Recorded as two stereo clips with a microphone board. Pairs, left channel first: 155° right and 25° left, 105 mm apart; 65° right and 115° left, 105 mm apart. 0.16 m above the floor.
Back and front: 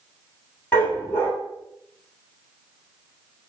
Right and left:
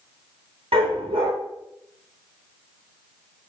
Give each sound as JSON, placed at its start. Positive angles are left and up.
{"t": 0.7, "sound": "a dog barking", "azimuth_deg": 135, "distance_m": 1.2}